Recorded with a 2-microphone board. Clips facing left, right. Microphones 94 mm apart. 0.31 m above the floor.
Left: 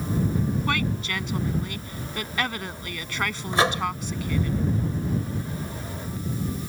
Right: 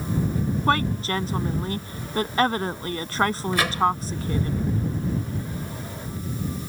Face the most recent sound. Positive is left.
turn(degrees=30)  # may be behind; listen again after turning